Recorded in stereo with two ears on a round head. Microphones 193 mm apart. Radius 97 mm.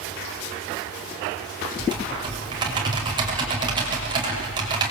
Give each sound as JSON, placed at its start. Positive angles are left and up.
{"t": 1.8, "sound": "typing on a keyboard", "side_deg": -20, "distance_m": 6.0}